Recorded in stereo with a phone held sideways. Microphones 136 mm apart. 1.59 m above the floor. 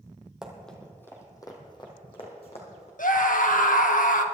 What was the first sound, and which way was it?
Running footsteps, 5° right (ahead or behind).